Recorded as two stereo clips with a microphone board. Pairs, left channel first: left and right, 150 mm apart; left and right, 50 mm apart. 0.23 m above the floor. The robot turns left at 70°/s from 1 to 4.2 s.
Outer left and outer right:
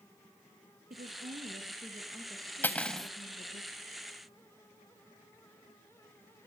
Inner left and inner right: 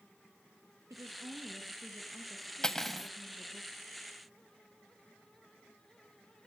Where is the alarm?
No alarm in this recording.